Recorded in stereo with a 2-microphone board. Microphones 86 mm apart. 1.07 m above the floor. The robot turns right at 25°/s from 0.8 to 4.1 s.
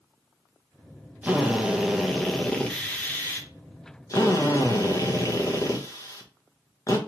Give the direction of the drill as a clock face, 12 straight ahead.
1 o'clock.